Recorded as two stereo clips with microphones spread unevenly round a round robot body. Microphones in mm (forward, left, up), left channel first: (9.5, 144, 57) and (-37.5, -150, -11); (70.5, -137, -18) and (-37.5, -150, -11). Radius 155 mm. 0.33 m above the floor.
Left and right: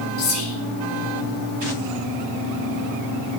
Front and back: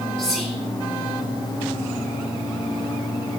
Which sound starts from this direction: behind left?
Whispering, at 0.2 s.